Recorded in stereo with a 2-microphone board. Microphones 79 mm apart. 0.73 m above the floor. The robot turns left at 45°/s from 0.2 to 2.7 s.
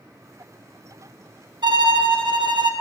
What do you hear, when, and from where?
1.6 s a violin: 65° right, 0.6 m; by 2.7 s 115° right, 0.6 m